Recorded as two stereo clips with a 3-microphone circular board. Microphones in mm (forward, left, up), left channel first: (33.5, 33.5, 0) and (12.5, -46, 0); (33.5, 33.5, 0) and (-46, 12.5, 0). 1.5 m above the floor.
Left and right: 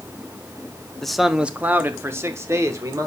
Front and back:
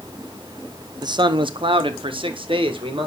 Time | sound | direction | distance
1.0 | a man speaking | 160° left | 0.7 m